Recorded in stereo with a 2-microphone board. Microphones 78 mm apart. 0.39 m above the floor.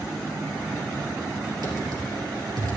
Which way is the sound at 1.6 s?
60° right (ahead or behind).